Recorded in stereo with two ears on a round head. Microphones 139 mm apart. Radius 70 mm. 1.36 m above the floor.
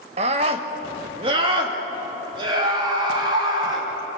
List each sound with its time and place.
0.2 s a scream: 40° right (ahead or behind), 1.3 m; by 3.9 s 30° right (ahead or behind), 4.5 m